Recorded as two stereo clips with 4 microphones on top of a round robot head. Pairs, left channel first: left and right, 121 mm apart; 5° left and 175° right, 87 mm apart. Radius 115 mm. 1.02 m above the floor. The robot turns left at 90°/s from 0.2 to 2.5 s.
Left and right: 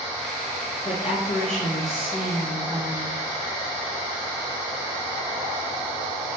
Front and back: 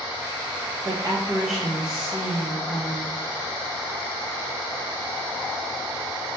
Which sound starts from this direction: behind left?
A woman speaking, at 0.8 s.